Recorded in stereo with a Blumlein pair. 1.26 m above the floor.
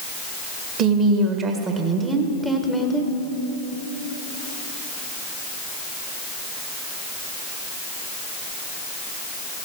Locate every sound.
0.8 s a woman speaking: 30° right, 1.8 m; by 3.1 s 15° left, 1.1 m